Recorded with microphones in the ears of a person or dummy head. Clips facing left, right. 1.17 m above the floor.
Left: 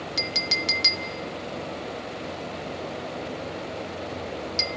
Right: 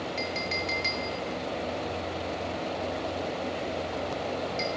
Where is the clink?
60° left (ahead or behind), 0.8 m.